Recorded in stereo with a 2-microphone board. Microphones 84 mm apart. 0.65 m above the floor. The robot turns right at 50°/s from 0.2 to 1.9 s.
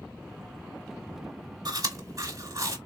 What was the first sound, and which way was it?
Chewing, 50° right (ahead or behind).